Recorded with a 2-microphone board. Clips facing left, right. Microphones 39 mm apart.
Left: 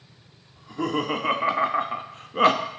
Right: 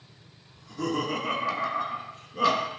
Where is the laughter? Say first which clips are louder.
Left 3 dB; 25° left (ahead or behind), 1.4 m; by 2.7 s 40° left (ahead or behind), 0.6 m.